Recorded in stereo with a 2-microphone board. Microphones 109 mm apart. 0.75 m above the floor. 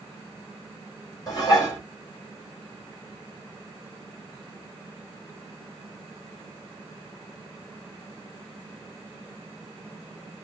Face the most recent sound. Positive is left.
turn(degrees=35)  # may be behind; listen again after turning